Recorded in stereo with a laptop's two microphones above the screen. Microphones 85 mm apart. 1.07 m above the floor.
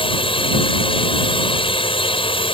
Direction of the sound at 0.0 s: 75° left (ahead or behind).